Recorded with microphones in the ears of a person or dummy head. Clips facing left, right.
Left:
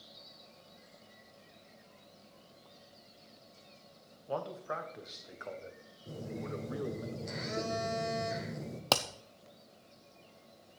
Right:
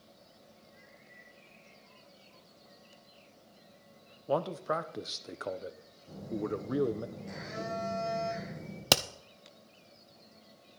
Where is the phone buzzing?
50° left (ahead or behind), 5 m.